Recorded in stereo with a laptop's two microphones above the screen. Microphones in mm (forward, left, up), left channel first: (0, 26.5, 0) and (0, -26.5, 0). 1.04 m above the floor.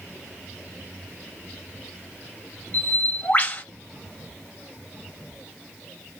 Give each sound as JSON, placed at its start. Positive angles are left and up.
{"t": 2.7, "sound": "a bird", "side_deg": 35, "distance_m": 1.0}